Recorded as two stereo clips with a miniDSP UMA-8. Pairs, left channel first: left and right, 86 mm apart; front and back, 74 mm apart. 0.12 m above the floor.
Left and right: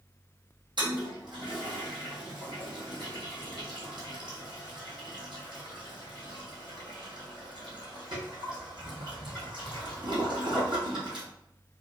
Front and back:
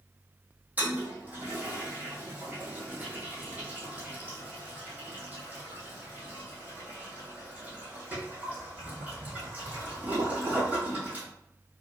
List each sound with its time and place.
0.8 s a toilet flushing: 110° right, 2 m